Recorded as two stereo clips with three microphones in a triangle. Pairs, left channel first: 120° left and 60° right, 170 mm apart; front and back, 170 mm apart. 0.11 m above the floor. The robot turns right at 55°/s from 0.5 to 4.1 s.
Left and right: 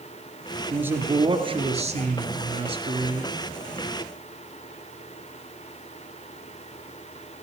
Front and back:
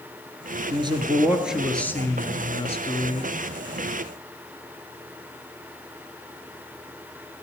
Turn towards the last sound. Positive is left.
turn(degrees=45)